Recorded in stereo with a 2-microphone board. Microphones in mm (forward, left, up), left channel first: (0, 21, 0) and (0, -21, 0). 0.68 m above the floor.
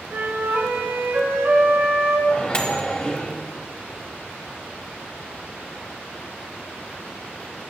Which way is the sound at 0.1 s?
90° right.